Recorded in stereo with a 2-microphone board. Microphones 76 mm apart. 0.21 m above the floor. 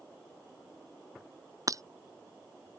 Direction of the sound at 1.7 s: 45° right (ahead or behind).